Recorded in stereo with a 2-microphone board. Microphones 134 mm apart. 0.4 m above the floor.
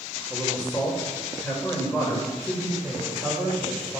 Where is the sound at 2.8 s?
Centre (ahead or behind), 1.7 m.